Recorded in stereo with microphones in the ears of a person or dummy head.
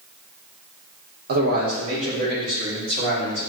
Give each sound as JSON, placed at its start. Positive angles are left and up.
{"t": 1.3, "sound": "a man speaking", "side_deg": -50, "distance_m": 1.0}